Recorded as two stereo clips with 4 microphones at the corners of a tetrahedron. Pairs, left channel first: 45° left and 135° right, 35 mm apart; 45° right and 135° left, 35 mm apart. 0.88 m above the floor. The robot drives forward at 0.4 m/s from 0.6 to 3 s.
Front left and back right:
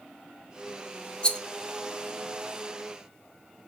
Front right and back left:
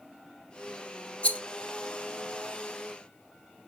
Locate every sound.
1.2 s a rattle: 10° right, 0.6 m